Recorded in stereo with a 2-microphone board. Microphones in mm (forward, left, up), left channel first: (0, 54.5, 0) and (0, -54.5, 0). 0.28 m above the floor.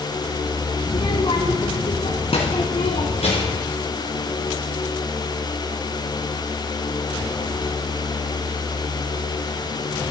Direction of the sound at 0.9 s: 40° left (ahead or behind).